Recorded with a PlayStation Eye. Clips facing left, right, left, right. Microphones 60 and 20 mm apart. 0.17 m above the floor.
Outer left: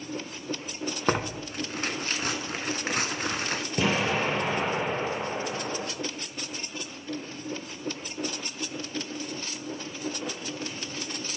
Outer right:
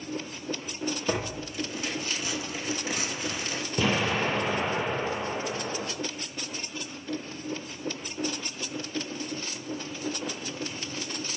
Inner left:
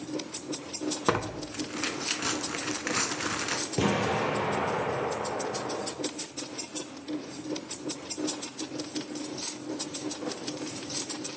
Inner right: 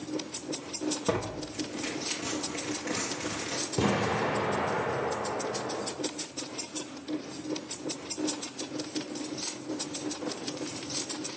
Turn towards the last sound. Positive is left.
turn(degrees=20)  # may be behind; listen again after turning